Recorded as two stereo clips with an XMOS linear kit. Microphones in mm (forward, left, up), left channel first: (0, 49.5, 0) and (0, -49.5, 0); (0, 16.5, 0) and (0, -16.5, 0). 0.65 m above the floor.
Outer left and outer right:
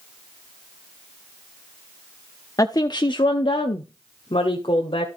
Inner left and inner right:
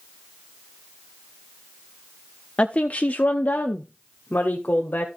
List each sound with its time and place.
2.6 s a woman speaking: 35° left (ahead or behind), 0.6 m; by 5.1 s 65° left (ahead or behind), 1.6 m